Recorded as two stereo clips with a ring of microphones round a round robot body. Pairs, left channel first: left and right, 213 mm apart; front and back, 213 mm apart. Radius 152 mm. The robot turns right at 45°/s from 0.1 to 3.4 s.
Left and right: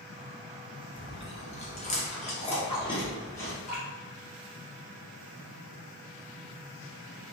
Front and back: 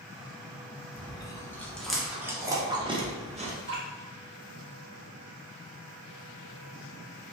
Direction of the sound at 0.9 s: 45° left.